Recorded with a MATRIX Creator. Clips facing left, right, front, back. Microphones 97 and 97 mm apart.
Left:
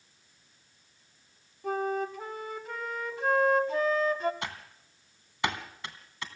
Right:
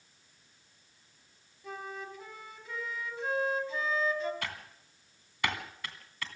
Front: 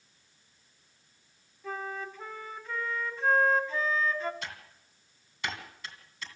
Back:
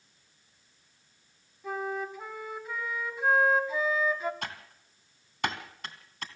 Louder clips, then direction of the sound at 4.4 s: Left 2 dB, back 3 dB; 155° left.